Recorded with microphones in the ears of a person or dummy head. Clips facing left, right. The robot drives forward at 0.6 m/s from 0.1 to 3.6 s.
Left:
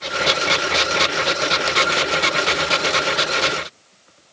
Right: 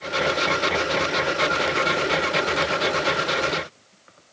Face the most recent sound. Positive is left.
No sound to turn to.